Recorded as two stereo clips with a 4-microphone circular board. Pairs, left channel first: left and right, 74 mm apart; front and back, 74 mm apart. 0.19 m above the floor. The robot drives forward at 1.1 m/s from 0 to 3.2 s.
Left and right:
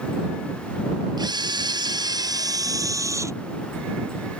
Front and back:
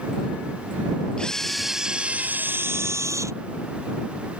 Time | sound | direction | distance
1.2 | a camera shutter | 75° right | ?